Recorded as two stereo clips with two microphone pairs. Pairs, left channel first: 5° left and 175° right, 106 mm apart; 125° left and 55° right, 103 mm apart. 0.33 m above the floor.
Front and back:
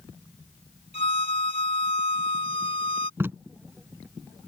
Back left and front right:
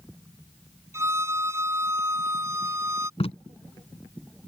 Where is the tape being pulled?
120° left.